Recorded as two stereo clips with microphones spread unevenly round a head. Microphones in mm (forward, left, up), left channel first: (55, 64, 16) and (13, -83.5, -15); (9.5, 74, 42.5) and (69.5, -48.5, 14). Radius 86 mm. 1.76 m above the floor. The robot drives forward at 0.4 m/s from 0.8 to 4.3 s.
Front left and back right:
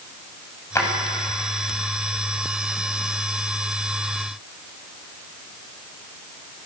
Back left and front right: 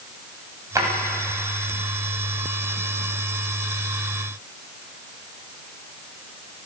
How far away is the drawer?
About 8 m.